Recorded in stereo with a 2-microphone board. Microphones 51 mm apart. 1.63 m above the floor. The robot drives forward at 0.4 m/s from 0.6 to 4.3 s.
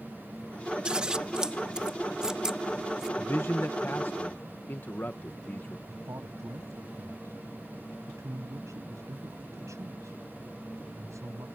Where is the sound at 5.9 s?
85° right.